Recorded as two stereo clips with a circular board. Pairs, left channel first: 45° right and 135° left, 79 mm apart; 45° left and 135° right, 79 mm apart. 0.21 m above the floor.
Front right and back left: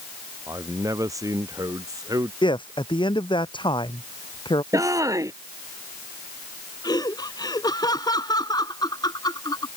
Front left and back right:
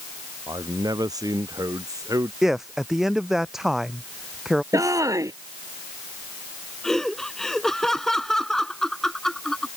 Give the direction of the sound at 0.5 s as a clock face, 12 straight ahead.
6 o'clock.